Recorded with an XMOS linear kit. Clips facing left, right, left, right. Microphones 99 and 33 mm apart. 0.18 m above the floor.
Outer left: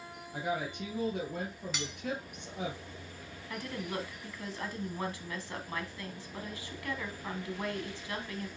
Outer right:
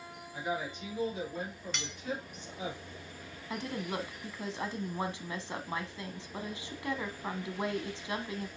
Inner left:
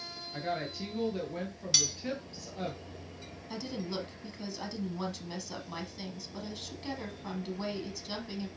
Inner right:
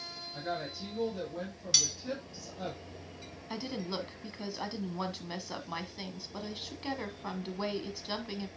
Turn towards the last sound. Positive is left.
turn(degrees=-20)  # may be behind; listen again after turning